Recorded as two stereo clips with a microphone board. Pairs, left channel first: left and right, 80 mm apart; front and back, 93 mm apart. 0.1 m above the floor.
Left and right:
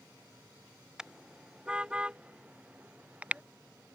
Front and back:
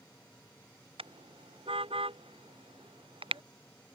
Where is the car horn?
170° right; by 3.4 s 165° right.